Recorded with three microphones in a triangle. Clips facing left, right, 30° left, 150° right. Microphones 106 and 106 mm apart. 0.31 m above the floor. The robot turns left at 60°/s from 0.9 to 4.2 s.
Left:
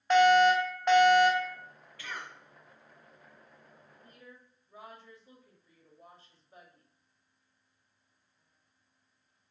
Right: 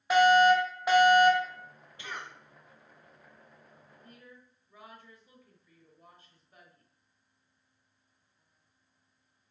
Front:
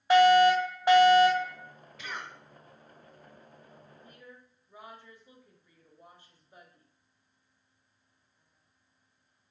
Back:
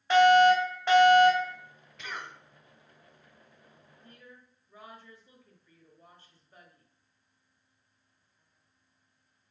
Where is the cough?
60° right, 0.9 m; by 2.3 s 80° right, 0.9 m.